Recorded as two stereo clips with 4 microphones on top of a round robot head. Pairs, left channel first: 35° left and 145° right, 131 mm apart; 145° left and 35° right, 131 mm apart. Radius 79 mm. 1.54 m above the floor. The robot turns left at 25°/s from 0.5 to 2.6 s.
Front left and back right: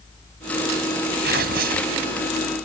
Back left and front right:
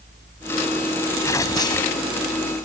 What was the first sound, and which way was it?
Tearing paper, 145° right.